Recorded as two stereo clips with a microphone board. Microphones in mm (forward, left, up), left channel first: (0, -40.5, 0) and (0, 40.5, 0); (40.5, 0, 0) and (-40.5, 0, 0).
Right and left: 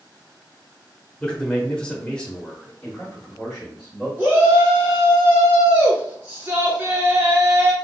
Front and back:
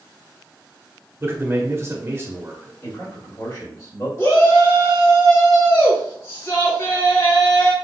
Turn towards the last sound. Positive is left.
turn(degrees=30)